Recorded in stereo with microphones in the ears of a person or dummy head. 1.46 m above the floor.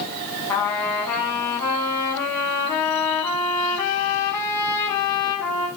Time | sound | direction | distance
0.5 | a trumpet | 20° left (ahead or behind) | 5 m